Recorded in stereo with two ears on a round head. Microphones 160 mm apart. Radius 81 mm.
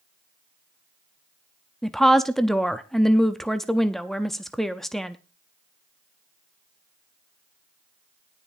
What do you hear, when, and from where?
1.8 s a woman speaking: centre (ahead or behind), 0.6 m